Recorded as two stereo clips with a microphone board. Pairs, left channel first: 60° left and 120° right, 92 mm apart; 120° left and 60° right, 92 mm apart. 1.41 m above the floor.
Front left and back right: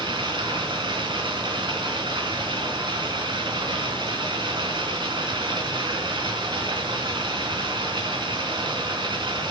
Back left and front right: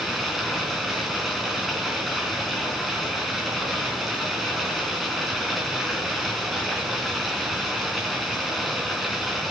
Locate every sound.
0.0 s running water: 150° right, 3.5 m